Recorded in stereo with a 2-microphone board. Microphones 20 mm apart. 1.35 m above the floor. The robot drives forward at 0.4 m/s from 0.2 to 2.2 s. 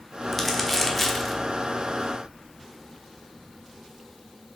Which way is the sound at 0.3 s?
5° left (ahead or behind).